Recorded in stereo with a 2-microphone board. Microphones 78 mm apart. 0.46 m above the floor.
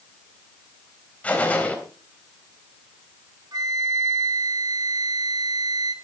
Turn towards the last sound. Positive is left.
turn(degrees=-55)  # may be behind; listen again after turning